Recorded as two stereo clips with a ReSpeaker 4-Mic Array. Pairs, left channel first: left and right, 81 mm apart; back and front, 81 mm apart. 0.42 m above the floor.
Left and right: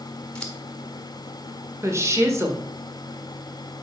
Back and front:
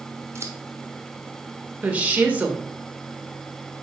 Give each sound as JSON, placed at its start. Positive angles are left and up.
{"t": 0.3, "sound": "scissors", "azimuth_deg": 15, "distance_m": 1.4}
{"t": 1.8, "sound": "a woman speaking", "azimuth_deg": -65, "distance_m": 1.6}